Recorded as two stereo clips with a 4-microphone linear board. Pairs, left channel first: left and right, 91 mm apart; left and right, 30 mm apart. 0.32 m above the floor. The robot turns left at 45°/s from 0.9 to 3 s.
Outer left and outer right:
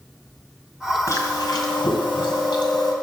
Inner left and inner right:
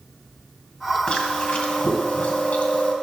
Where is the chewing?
140° left, 2.0 m; by 2.9 s 55° left, 2.0 m.